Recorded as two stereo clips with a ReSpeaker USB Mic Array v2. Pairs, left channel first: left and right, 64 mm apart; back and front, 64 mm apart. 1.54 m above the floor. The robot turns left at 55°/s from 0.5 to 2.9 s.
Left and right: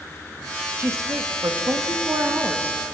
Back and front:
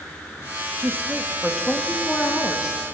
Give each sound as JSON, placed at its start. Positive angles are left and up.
{"t": 0.8, "sound": "a woman speaking", "azimuth_deg": -45, "distance_m": 1.9}